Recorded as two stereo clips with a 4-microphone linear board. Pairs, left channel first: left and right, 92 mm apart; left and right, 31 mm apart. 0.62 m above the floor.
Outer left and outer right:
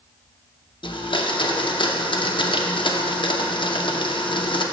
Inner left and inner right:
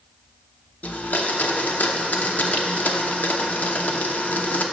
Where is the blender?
60° left (ahead or behind), 0.5 m.